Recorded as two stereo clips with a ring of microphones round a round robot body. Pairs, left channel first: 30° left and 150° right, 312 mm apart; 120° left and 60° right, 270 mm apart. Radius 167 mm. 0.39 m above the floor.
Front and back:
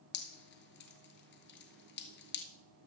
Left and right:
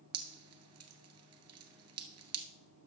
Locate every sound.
0.1 s dripping: 30° right, 1.4 m